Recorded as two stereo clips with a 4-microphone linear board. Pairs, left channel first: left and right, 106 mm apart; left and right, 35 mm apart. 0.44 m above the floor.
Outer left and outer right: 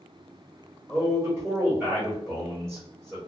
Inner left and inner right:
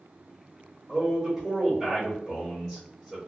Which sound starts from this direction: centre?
A man speaking, at 0.9 s.